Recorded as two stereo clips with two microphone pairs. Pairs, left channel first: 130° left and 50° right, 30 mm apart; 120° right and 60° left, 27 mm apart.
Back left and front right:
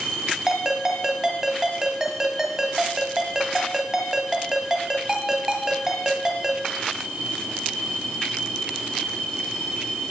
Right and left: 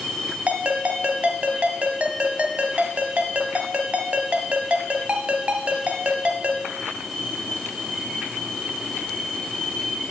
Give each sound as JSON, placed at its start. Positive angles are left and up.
{"t": 0.5, "sound": "a ringtone", "azimuth_deg": 30, "distance_m": 1.9}